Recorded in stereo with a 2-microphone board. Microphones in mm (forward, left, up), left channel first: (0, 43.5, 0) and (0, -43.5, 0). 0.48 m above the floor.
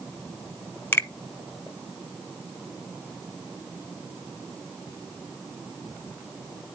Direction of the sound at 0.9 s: 25° left (ahead or behind).